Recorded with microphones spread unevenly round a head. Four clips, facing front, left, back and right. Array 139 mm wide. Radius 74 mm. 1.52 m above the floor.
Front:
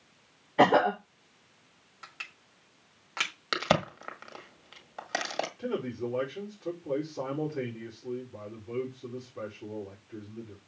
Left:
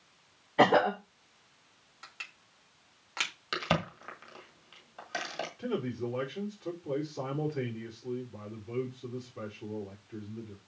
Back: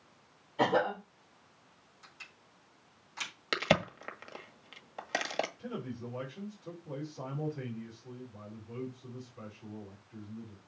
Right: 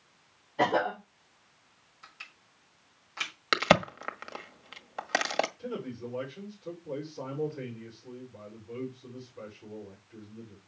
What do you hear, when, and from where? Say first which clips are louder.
0.6 s a cough: left 4 dB, front 7 dB; 30° left, 2.5 m
2.0 s crushing: left 2 dB, front 8 dB; 25° left, 5 m
3.5 s a crack: right 8 dB, front 2 dB; 105° right, 1.6 m
5.6 s a man speaking: left 4 dB, front 8 dB; 35° left, 4.5 m